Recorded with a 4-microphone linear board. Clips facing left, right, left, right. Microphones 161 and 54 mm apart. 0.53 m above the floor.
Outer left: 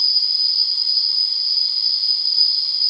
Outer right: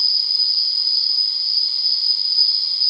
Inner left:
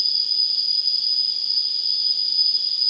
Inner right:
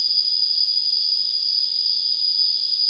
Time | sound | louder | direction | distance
0.0 | an insect | even, inner right 2 dB | 55° left (ahead or behind) | 1.1 m